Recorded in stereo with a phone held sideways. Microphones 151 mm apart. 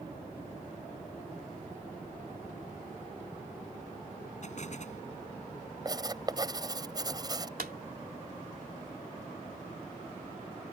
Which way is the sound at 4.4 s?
55° left (ahead or behind).